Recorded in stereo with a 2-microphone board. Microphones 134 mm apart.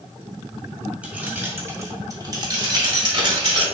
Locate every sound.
1.0 s keys jangling: 10° right (ahead or behind), 1.0 m; by 3.6 s 40° right (ahead or behind), 1.3 m